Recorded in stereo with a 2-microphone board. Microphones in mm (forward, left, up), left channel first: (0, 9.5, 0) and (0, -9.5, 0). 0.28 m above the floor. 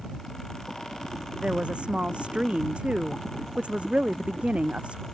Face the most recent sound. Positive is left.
turn(degrees=-85)